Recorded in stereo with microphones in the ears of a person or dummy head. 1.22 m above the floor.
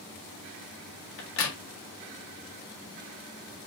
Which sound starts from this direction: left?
A crack, at 1.2 s.